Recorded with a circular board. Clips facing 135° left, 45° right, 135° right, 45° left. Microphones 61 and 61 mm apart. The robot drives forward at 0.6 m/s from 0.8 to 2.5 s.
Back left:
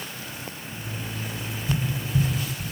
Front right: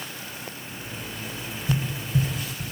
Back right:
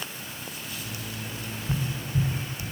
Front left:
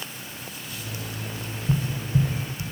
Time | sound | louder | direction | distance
1.7 | tapping | even, front left 5 dB | 25° left | 3.5 m